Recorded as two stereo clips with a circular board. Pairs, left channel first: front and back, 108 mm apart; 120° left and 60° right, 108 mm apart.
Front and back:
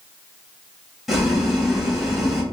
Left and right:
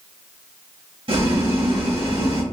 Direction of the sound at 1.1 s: 90° right.